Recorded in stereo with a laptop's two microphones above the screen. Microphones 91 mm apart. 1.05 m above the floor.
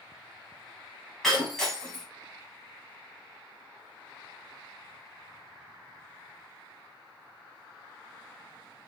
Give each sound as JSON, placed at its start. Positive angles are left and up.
{"t": 1.2, "sound": "breaking glass", "side_deg": 5, "distance_m": 2.0}